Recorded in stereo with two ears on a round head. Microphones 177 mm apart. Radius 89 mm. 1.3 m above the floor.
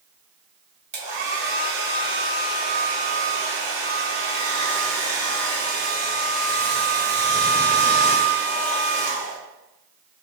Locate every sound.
0.9 s a hair dryer: 55° right (ahead or behind), 1.0 m